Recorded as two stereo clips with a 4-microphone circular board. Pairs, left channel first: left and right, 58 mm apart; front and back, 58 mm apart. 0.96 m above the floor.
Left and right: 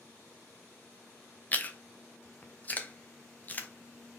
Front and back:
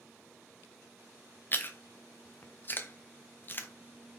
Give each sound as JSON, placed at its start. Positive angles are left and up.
{"t": 1.5, "sound": "chewing", "azimuth_deg": 40, "distance_m": 0.6}